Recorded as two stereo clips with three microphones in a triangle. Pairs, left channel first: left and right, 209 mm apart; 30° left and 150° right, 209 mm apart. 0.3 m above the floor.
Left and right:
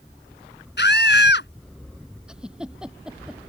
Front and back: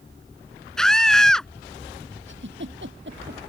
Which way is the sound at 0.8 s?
115° left.